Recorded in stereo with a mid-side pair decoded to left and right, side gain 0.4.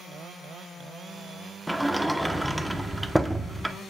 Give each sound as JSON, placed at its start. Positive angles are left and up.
{"t": 1.7, "sound": "a sliding door", "azimuth_deg": -10, "distance_m": 1.0}